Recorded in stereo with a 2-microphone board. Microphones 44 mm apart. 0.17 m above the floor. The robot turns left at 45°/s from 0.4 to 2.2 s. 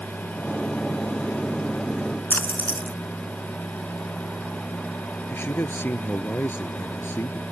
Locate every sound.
2.3 s a splash: 55° left (ahead or behind)
5.3 s a man speaking: 60° left (ahead or behind)